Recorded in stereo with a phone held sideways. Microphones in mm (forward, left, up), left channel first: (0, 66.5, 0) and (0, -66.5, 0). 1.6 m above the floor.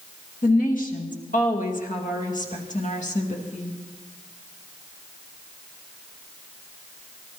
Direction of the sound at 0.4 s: 80° left.